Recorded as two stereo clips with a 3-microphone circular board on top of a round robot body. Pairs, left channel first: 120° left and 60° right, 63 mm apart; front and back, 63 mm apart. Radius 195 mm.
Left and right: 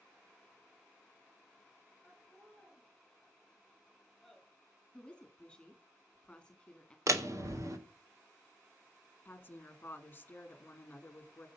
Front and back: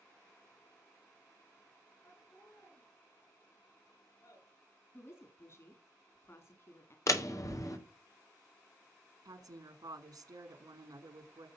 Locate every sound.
2.0 s laughter: 30° left, 7 m
4.9 s a woman speaking: 45° left, 3 m
7.1 s a door slam: 30° right, 2.5 m
9.2 s a woman speaking: straight behind, 3 m